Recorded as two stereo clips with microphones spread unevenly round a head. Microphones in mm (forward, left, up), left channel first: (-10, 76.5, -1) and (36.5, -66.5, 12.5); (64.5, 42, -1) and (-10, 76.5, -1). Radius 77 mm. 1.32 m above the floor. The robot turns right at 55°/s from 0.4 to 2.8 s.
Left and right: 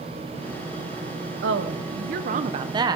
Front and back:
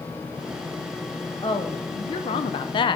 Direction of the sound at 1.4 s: 80° right.